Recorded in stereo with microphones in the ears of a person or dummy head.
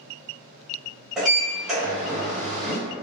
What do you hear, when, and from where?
1.2 s a sliding door: centre (ahead or behind), 1.4 m